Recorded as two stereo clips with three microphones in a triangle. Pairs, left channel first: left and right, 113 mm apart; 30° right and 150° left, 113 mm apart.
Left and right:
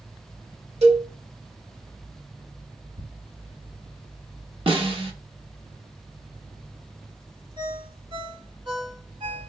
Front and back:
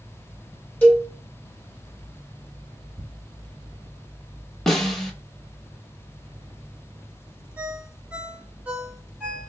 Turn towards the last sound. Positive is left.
turn(degrees=-135)